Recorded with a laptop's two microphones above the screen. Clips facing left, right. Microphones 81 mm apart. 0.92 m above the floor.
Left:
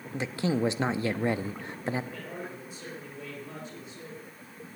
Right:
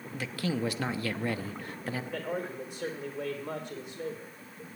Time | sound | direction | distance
0.1 | a man speaking | 25° left (ahead or behind) | 0.9 m
2.1 | a man speaking | 70° right (ahead or behind) | 3 m